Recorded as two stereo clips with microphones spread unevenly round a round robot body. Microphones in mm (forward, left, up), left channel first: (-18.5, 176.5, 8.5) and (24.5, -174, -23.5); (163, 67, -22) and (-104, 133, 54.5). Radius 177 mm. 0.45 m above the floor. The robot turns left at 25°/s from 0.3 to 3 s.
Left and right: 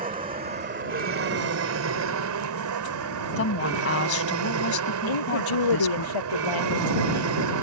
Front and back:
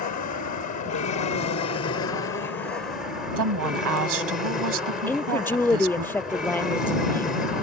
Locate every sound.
0.0 s an aircraft: 20° right; by 7.6 s 90° right
3.4 s a woman speaking: 155° left
5.1 s a woman speaking: 70° left